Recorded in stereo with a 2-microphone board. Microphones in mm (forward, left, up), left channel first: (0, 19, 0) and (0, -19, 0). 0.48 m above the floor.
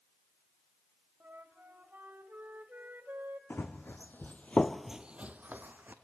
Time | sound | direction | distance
1.2 | a flute | 65° right (ahead or behind) | 1.0 m
3.5 | running footsteps | 75° left (ahead or behind) | 1.6 m